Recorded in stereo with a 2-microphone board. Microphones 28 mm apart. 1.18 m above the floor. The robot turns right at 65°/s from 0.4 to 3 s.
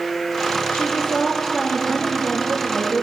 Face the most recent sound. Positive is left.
turn(degrees=-115)